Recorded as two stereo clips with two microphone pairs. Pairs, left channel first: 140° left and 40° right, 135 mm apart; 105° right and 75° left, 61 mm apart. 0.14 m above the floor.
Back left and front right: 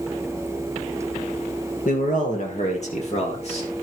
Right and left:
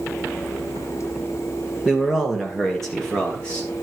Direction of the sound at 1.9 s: 155° left.